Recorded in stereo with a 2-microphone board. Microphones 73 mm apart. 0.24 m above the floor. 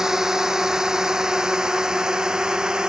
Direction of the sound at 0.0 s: 10° right (ahead or behind).